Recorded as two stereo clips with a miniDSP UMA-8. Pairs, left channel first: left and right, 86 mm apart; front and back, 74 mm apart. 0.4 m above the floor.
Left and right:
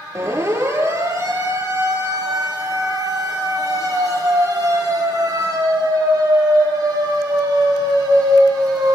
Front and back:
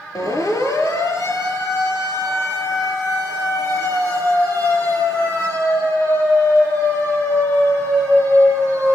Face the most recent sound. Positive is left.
turn(degrees=-55)